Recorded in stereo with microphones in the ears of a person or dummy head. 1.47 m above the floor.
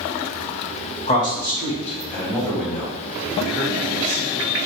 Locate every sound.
1.1 s a man speaking: 30° left (ahead or behind), 1.6 m; by 4.6 s 20° right (ahead or behind), 2.5 m